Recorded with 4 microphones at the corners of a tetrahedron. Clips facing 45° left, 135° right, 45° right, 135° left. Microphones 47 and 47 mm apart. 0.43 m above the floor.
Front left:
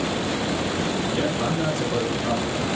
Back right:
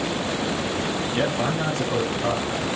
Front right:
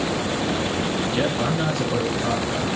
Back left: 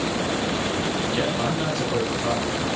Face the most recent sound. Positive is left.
turn(degrees=-130)